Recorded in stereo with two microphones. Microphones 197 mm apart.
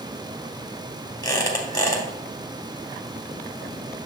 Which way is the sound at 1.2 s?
20° left (ahead or behind).